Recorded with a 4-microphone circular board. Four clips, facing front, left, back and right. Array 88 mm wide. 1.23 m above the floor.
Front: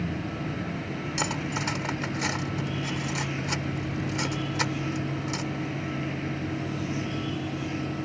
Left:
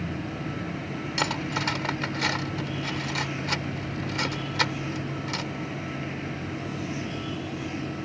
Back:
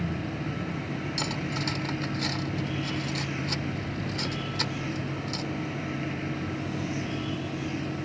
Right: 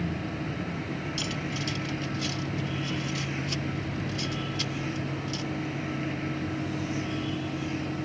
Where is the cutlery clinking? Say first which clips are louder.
Left 5 dB, front 4 dB; 70° left.